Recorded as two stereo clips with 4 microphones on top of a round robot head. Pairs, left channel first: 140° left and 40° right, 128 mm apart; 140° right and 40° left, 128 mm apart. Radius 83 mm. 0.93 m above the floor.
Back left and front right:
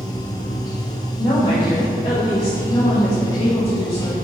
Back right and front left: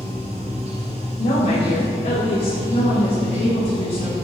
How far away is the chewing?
No chewing in this recording.